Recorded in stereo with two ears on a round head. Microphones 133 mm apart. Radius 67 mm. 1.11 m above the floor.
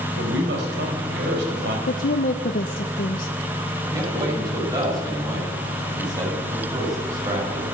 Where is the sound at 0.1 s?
80° right, 4.5 m.